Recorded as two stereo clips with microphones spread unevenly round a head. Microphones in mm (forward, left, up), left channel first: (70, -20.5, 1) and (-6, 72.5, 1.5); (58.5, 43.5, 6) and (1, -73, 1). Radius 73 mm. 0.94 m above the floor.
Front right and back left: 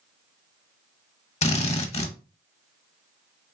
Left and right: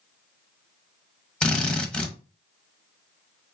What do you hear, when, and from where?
1.4 s a drill: 20° right, 1.0 m